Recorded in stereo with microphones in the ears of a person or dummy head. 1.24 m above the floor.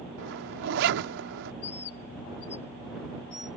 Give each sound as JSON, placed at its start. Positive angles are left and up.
{"t": 0.2, "sound": "a zipper", "side_deg": -70}
{"t": 1.6, "sound": "a bird", "side_deg": 65}